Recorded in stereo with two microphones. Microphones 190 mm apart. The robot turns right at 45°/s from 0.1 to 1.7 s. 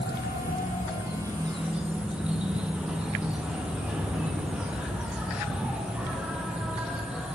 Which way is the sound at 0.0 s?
115° left.